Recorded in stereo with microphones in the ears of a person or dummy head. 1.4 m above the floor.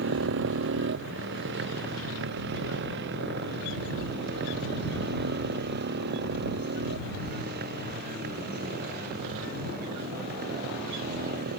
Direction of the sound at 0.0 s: 65° right (ahead or behind).